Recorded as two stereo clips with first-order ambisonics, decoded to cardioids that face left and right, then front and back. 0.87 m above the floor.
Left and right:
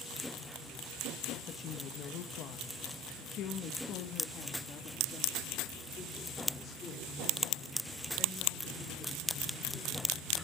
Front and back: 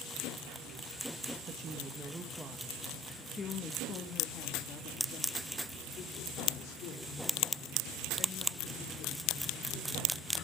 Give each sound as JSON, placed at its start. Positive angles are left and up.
{"t": 1.4, "sound": "a woman speaking", "azimuth_deg": 130, "distance_m": 1.2}